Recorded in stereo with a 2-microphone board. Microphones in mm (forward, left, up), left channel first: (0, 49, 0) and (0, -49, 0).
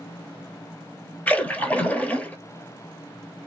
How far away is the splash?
About 0.8 m.